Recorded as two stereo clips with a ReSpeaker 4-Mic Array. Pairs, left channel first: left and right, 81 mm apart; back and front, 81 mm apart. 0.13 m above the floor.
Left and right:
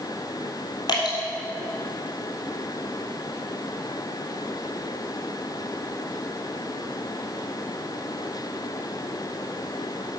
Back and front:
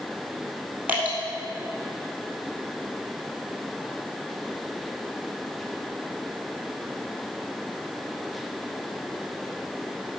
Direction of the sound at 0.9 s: 65° left.